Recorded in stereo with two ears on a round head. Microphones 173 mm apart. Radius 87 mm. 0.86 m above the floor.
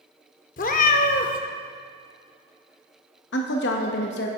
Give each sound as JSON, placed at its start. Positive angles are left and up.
{"t": 0.6, "sound": "a cat meowing", "side_deg": 45, "distance_m": 0.6}
{"t": 3.3, "sound": "a woman speaking", "side_deg": 60, "distance_m": 0.8}